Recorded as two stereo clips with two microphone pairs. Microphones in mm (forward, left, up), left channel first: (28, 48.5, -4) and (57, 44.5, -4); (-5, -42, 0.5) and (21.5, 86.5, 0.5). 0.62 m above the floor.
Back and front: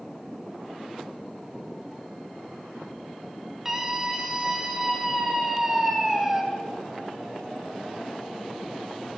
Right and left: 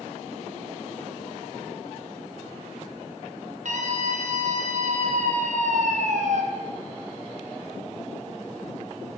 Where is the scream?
65° left, 3 m.